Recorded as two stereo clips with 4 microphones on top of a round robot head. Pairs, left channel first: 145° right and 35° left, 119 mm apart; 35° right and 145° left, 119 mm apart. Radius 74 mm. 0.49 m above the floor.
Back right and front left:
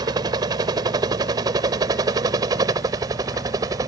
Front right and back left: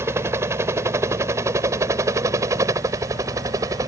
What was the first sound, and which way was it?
A helicopter, 80° left.